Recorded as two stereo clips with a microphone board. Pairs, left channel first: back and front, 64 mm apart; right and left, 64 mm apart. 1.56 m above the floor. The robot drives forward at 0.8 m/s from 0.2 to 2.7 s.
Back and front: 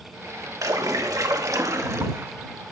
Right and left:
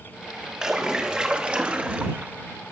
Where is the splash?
15° left, 2 m; by 2.3 s 35° left, 1.1 m.